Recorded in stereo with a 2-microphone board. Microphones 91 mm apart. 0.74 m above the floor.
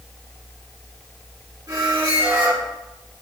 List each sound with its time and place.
1.7 s a squeak: 40° right (ahead or behind), 1.5 m